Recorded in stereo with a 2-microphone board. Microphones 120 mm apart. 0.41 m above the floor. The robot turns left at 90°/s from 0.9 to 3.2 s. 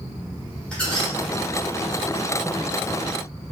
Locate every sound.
0.7 s a squeak: 10° left (ahead or behind), 0.9 m; by 1.1 s 5° right (ahead or behind), 0.9 m